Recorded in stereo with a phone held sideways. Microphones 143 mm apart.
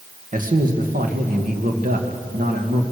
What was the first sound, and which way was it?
A man speaking, 65° right (ahead or behind).